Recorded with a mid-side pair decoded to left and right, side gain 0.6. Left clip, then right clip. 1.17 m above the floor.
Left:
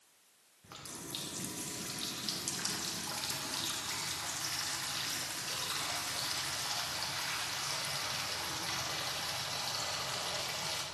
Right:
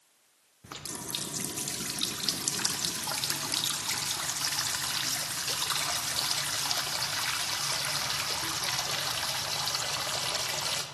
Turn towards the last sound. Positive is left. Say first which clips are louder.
# right 7 dB
turn(degrees=-45)